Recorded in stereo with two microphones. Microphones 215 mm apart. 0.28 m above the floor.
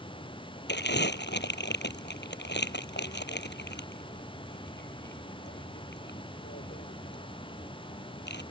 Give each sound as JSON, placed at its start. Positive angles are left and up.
{"t": 0.7, "sound": "crumpling", "side_deg": 55}